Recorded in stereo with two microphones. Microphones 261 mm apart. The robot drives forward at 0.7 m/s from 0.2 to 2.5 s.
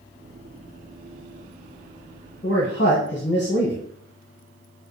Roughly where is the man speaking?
Left.